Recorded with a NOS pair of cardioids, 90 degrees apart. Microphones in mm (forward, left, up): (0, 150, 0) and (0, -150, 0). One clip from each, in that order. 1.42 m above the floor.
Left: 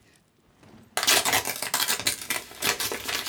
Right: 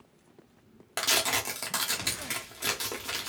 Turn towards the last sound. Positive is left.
turn(degrees=25)